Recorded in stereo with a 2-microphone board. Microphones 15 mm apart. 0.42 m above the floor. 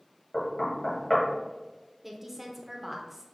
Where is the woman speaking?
10° right (ahead or behind), 0.8 m.